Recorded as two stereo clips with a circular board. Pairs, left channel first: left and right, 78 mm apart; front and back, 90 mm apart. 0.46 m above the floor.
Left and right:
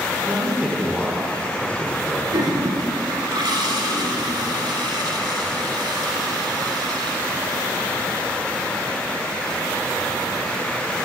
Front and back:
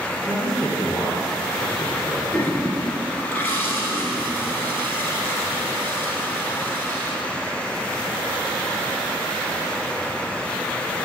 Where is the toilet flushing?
70° right, 1.1 m.